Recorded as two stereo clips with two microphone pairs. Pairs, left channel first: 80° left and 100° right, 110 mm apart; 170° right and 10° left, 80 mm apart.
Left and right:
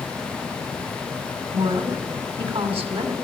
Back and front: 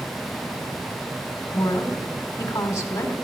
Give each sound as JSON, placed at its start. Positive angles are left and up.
{"t": 1.5, "sound": "a woman speaking", "azimuth_deg": -120, "distance_m": 2.5}